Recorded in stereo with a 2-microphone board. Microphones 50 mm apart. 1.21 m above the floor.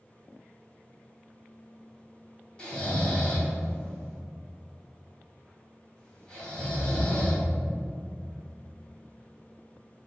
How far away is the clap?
I don't hear a clap.